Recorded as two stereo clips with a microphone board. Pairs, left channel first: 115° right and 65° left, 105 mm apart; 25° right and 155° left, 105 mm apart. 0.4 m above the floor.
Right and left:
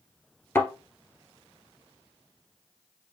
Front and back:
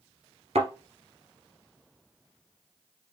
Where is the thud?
Straight behind, 1.7 m.